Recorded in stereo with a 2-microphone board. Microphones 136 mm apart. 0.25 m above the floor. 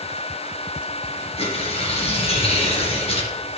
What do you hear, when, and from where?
1.4 s tearing paper: 45° left (ahead or behind), 2.5 m